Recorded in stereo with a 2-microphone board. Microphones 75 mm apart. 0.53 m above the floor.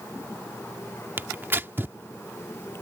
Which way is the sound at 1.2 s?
30° right (ahead or behind).